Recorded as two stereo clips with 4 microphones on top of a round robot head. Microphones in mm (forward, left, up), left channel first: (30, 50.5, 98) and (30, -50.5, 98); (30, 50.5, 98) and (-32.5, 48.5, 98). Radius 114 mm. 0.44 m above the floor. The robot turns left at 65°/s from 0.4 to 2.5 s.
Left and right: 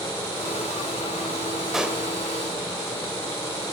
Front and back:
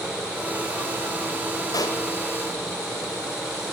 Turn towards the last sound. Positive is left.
turn(degrees=-50)